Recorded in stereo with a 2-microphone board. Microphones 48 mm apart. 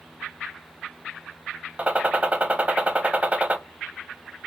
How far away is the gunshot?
About 0.6 m.